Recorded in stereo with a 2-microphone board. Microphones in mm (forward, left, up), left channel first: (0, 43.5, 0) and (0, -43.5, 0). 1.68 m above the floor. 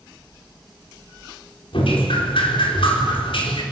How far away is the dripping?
About 4.5 m.